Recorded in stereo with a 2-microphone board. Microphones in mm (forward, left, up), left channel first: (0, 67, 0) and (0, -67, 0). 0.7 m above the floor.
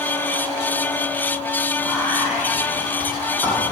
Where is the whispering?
10° right (ahead or behind), 2 m.